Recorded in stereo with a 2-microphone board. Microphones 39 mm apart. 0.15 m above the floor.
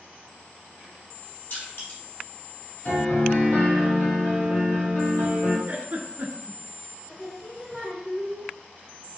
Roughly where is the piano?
Left.